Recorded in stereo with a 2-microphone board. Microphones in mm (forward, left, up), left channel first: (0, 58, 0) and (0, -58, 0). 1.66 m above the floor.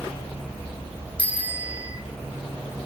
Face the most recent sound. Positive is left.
turn(degrees=-15)  # may be behind; listen again after turning